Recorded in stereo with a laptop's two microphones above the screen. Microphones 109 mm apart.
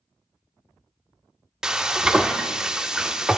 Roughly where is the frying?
Centre.